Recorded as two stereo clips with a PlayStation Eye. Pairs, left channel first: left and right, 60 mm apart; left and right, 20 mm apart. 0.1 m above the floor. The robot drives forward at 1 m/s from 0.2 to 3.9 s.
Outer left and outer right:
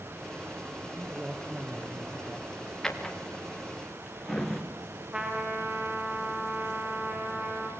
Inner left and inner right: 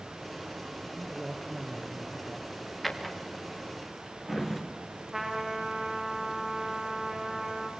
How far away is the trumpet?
About 7 m.